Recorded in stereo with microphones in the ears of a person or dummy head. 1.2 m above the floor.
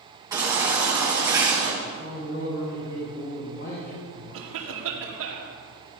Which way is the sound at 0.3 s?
20° right (ahead or behind).